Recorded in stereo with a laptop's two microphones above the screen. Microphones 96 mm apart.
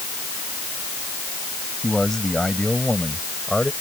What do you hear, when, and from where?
1.8 s a man speaking: 5° left (ahead or behind)